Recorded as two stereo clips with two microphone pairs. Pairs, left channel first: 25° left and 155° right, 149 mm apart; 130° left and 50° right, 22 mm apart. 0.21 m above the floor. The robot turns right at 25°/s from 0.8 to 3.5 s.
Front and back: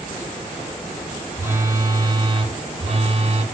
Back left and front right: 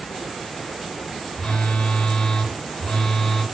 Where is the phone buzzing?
135° left, 1.0 m; by 3.4 s 175° right, 1.0 m.